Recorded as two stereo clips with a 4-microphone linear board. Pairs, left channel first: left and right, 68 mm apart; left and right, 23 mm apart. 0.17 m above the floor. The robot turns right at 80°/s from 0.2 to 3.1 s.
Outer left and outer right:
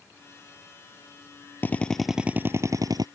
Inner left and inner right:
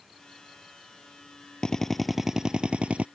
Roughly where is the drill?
Behind left.